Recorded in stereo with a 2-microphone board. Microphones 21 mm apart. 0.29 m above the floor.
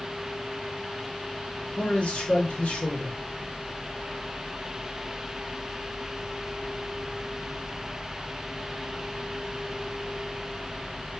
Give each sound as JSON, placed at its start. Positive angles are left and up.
{"t": 1.8, "sound": "a man speaking", "side_deg": 60, "distance_m": 4.5}